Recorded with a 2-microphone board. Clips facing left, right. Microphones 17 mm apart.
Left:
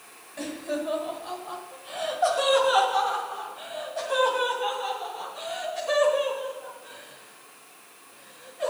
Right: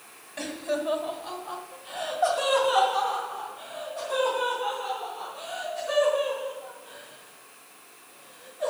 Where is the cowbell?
I don't hear a cowbell.